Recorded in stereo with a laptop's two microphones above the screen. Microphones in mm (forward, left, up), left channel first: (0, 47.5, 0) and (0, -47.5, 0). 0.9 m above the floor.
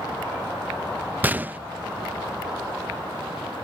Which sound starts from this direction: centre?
A gunshot, at 1.2 s.